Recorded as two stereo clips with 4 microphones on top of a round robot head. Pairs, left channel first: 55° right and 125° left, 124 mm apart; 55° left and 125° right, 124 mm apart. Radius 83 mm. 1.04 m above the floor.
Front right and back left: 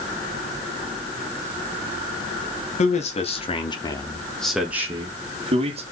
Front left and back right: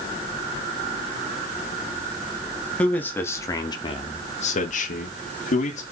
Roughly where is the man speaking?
Ahead right.